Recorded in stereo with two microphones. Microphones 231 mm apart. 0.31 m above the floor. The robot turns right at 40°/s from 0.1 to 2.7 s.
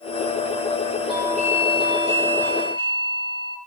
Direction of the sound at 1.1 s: 160° right.